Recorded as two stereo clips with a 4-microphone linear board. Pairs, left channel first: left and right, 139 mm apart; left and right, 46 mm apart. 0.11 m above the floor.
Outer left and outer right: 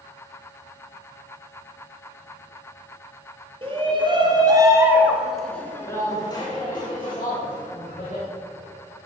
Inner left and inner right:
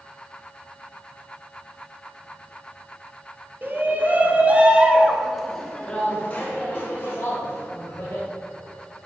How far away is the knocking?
I don't hear knocking.